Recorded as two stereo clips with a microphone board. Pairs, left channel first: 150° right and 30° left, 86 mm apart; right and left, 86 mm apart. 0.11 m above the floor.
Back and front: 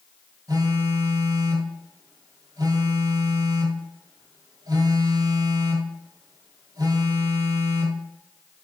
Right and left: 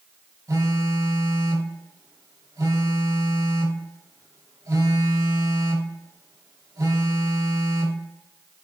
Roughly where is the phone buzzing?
Ahead left.